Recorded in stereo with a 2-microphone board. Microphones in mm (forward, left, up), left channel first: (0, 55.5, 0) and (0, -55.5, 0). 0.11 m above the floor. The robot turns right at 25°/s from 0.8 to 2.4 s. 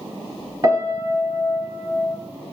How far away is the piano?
About 0.9 m.